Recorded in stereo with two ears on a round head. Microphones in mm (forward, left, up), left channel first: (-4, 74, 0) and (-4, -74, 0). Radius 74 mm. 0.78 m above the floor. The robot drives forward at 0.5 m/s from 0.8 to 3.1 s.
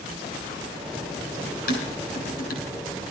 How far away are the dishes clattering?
About 6 m.